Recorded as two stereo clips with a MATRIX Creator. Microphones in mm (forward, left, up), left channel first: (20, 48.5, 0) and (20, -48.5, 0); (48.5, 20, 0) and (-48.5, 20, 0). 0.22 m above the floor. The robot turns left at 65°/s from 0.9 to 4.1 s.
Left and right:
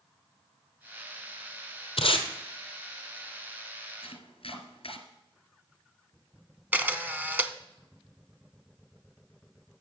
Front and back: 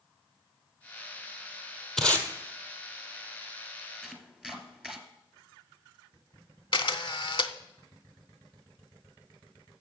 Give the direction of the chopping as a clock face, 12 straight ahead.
9 o'clock.